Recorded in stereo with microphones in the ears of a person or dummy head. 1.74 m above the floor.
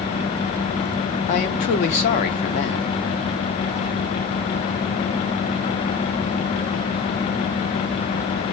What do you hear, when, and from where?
1.3 s a man speaking: 30° left (ahead or behind), 0.6 m